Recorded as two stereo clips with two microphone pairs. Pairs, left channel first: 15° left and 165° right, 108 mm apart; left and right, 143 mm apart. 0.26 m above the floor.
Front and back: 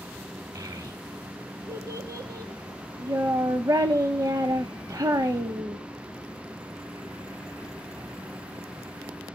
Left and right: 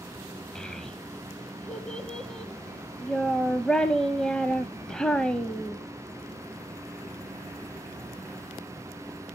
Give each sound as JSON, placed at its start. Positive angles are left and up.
{"t": 0.6, "sound": "a child speaking", "azimuth_deg": 165, "distance_m": 0.6}